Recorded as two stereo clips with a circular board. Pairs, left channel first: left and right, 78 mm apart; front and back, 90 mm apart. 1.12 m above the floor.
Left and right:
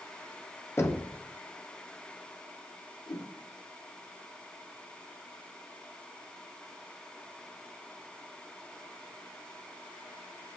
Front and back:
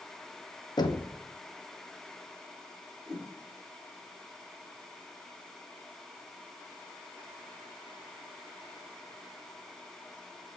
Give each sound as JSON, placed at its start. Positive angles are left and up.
{"t": 0.8, "sound": "knocking", "azimuth_deg": 35, "distance_m": 0.6}
{"t": 3.1, "sound": "a whoosh", "azimuth_deg": 90, "distance_m": 1.2}